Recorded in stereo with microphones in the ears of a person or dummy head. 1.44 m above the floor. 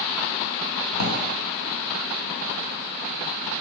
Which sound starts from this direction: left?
A drawer, at 0.9 s.